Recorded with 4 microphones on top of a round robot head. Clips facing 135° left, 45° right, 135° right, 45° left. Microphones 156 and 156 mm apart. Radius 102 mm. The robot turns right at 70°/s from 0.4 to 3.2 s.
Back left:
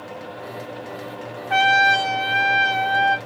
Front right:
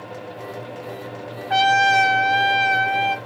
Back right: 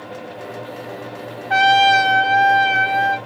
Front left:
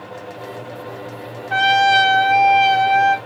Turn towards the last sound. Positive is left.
turn(degrees=20)